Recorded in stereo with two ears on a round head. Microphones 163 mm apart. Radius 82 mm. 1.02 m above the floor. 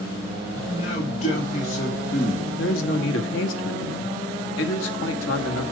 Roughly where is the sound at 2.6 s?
Left.